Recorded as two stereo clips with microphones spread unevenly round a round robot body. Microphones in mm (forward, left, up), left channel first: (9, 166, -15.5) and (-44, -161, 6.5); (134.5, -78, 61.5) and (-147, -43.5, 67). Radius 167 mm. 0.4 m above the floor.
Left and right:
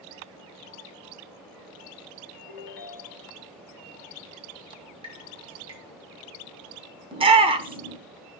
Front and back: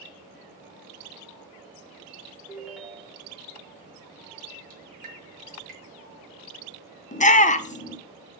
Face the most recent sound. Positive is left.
turn(degrees=-35)